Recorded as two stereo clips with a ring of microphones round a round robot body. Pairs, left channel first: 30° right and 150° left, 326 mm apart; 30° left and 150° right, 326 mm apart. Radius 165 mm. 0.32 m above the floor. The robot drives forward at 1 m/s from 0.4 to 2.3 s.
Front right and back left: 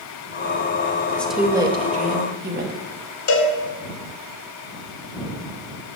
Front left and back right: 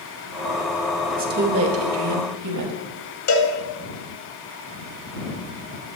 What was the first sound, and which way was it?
A woman speaking, 105° right.